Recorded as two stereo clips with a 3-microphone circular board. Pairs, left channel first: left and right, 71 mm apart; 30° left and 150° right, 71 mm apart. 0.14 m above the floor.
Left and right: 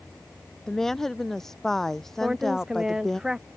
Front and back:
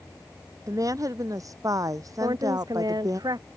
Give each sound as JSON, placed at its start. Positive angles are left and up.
{"t": 0.7, "sound": "a woman speaking", "azimuth_deg": 175}
{"t": 2.2, "sound": "a woman speaking", "azimuth_deg": -170}